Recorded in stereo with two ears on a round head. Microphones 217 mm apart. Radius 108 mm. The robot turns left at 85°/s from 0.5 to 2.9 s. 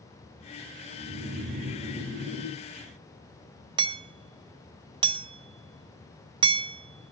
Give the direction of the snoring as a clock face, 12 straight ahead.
2 o'clock.